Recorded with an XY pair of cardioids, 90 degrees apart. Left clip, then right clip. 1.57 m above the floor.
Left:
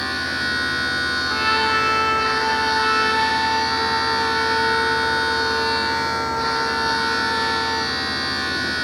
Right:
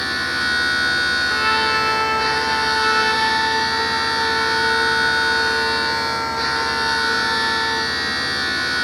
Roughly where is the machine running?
Ahead right.